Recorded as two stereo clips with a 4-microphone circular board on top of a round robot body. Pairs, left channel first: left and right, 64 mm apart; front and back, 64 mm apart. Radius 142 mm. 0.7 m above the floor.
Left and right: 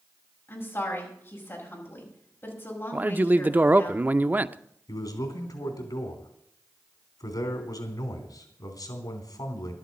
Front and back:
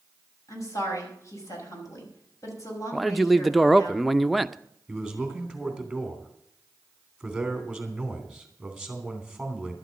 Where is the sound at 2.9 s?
90° right, 0.8 m.